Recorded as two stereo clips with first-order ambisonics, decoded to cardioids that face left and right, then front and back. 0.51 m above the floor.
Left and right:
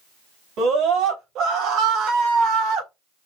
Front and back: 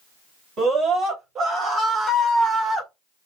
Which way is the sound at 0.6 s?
130° right.